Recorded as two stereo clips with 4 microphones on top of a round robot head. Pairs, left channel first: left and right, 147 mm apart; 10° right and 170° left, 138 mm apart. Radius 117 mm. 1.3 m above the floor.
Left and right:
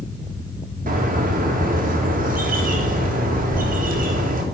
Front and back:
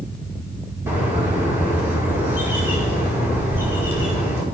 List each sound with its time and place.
0.9 s a bird: 115° right, 2 m